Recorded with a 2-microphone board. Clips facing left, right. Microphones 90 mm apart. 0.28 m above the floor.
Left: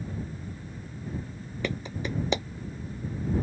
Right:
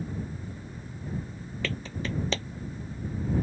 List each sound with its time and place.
1.6 s a clap: 20° left (ahead or behind)